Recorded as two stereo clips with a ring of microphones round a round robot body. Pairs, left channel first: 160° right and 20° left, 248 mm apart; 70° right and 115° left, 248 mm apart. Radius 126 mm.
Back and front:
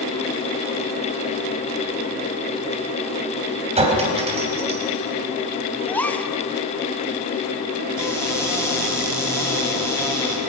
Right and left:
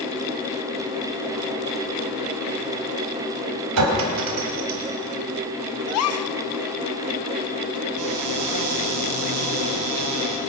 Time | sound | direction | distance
3.8 | a clink | 90° left | 3.5 m
5.9 | a gasp | 75° right | 1.1 m
8.0 | a cupboard door | 125° left | 5 m